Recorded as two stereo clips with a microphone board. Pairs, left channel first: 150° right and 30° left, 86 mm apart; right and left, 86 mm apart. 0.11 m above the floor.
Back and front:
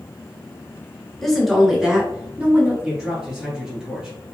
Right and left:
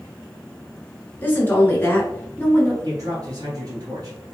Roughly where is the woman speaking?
Right.